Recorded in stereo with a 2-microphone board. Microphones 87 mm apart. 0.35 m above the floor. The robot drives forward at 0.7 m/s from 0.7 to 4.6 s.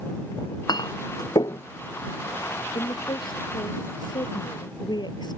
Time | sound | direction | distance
0.4 | a clink | 50° left (ahead or behind) | ?
2.8 | a woman speaking | 60° left (ahead or behind) | ?